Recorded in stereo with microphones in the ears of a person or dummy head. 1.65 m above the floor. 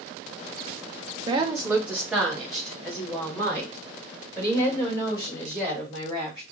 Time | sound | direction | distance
1.3 | a woman speaking | 30° right (ahead or behind) | 0.9 m